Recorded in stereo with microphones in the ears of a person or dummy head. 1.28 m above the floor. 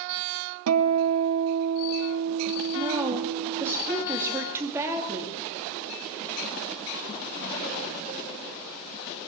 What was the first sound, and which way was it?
A guitar, 75° right (ahead or behind).